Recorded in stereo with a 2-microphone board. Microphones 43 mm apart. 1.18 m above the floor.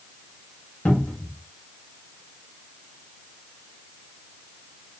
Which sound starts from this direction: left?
A cupboard door, at 0.8 s.